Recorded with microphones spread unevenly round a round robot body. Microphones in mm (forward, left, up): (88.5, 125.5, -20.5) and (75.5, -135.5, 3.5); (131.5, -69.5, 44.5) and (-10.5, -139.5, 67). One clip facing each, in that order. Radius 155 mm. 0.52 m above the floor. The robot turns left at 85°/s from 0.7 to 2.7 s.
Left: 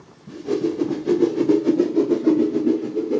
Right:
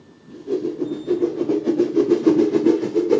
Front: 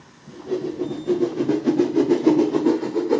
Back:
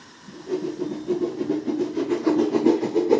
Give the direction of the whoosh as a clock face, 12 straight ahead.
9 o'clock.